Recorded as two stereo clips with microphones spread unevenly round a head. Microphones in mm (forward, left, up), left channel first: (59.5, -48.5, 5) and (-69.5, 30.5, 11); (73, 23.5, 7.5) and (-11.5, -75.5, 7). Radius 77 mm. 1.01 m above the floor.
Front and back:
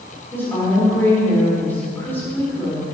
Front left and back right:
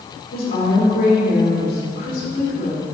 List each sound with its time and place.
0.3 s a woman speaking: 45° left, 2.5 m